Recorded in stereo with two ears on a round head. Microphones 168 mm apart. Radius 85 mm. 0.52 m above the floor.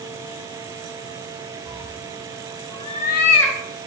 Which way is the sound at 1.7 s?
30° right (ahead or behind).